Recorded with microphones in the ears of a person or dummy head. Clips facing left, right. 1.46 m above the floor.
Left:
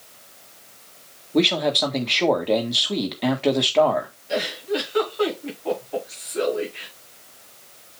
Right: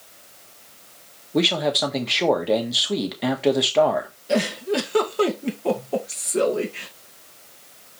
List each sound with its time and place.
1.3 s a man speaking: 5° right (ahead or behind), 1.5 m
4.3 s a giggle: 60° right (ahead or behind), 2 m